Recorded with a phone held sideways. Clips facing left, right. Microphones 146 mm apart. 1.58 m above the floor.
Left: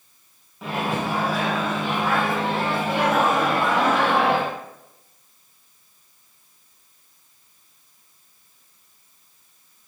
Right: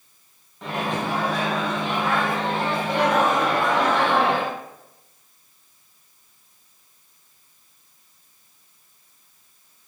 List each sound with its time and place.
0.6 s a microwave: 5° left (ahead or behind), 0.6 m